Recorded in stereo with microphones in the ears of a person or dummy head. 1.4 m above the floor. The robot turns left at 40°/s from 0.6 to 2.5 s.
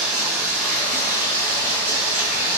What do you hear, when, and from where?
0.0 s running water: 175° left, 1.3 m; by 2.6 s 100° left, 1.3 m